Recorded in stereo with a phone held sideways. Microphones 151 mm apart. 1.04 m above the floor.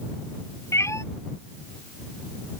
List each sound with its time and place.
0.7 s a cat meowing: 20° left (ahead or behind)